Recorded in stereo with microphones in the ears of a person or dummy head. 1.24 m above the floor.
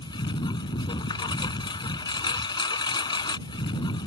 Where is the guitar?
No guitar in this recording.